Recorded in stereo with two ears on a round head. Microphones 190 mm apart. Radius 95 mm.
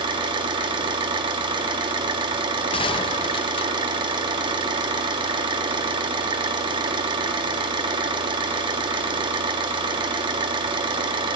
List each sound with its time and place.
0.0 s an engine running: 20° right (ahead or behind), 2.0 m
2.7 s a gunshot: 25° left (ahead or behind), 1.0 m